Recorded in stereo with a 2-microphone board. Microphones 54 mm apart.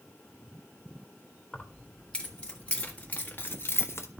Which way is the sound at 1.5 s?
10° left (ahead or behind).